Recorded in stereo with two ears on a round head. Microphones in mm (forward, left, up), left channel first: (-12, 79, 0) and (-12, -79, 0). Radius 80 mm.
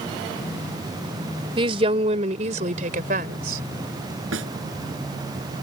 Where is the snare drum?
85° right.